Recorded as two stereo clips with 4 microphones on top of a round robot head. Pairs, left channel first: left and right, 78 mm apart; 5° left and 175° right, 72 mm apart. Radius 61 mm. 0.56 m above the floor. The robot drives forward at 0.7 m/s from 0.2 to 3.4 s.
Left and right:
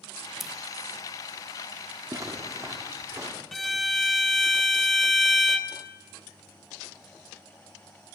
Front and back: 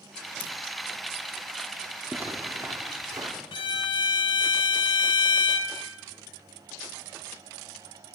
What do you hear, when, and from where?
0.4 s scissors: straight ahead, 0.8 m
2.1 s a zipper: 115° right, 1.1 m; by 3.3 s 145° right, 1.6 m
3.5 s a violin: straight ahead, 0.9 m